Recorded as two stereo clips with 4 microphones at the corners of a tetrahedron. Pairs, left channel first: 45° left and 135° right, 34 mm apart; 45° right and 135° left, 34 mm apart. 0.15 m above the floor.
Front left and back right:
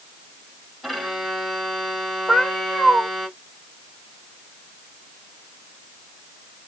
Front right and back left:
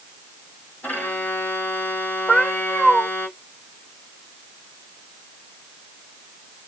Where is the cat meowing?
15° left, 1.6 m.